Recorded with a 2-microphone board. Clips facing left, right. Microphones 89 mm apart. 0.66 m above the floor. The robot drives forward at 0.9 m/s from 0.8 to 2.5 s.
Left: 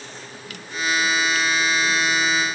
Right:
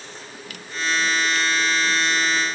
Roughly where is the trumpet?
No trumpet in this recording.